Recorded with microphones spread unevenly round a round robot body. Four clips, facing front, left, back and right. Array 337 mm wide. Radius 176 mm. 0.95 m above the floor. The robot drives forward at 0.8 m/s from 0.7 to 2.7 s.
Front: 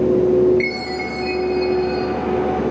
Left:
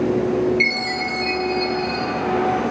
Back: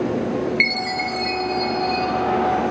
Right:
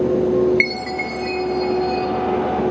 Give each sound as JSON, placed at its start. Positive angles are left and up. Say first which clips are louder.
{"t": 0.6, "sound": "a chime", "louder": "right 1 dB, front 1 dB", "azimuth_deg": -150, "distance_m": 1.2}